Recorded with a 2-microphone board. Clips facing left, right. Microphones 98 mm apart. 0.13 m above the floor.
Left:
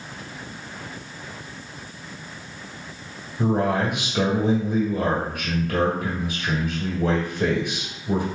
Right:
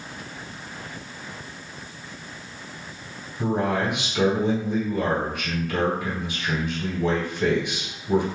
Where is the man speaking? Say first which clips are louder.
Left 2 dB; 45° left (ahead or behind), 2 m.